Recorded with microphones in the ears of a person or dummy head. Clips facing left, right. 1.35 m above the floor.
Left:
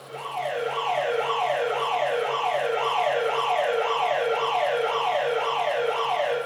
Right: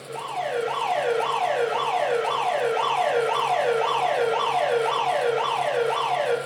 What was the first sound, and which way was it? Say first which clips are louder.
An alarm: right 2 dB; 80° right.